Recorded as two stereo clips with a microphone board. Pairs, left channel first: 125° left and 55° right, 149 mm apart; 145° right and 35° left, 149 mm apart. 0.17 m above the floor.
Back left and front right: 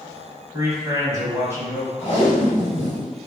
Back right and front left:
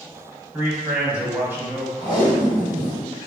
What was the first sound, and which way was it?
A man speaking, 20° right.